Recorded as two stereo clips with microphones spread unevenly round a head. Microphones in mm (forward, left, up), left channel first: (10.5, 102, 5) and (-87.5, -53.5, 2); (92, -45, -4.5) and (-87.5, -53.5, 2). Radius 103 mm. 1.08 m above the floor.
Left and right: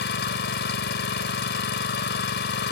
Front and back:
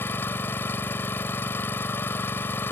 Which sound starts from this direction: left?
An engine running, at 0.0 s.